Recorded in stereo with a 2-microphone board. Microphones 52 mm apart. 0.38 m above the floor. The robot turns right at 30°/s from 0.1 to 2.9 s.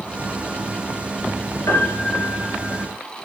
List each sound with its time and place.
1.7 s a piano: 110° left, 2.5 m; by 2.8 s 145° left, 2.5 m